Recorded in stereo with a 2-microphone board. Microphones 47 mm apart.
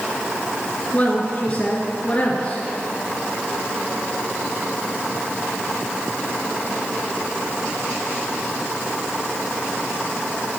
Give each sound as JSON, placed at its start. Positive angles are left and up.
{"t": 0.9, "sound": "a woman speaking", "side_deg": 30, "distance_m": 1.3}